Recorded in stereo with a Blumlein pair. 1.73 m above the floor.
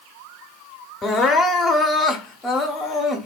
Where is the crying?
15° left, 0.7 m.